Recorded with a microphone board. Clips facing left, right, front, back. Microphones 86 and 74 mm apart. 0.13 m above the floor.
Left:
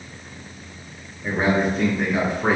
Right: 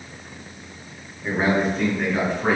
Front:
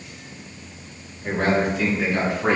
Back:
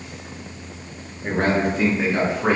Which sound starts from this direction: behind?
A man speaking, at 1.2 s.